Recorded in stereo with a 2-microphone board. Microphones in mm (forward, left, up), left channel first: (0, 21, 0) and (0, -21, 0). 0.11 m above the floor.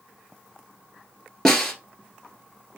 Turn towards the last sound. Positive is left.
turn(degrees=10)  # may be behind; listen again after turning